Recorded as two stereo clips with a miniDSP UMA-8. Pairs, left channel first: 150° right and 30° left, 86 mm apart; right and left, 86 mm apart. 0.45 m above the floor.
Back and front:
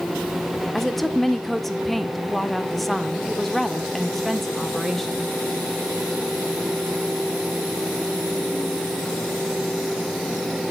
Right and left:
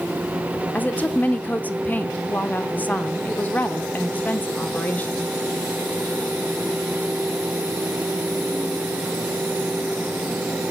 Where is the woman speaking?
65° right, 0.8 m.